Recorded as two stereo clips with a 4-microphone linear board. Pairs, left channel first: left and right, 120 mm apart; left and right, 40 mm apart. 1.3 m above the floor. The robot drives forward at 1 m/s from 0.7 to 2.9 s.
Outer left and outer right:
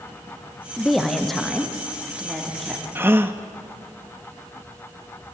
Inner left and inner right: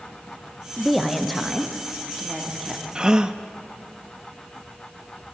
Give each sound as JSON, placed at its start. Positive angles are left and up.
{"t": 0.8, "sound": "a woman speaking", "side_deg": 0, "distance_m": 0.7}
{"t": 3.0, "sound": "a gasp", "side_deg": -20, "distance_m": 0.7}